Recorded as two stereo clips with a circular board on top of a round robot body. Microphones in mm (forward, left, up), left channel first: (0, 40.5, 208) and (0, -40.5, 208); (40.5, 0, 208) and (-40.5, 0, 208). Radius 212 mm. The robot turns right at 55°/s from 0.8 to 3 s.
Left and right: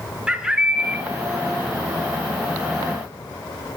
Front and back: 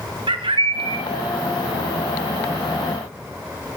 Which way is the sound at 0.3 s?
170° right.